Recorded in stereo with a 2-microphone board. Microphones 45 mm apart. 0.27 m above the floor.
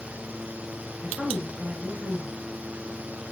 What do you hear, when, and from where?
1.0 s a woman speaking: 10° right (ahead or behind), 4.5 m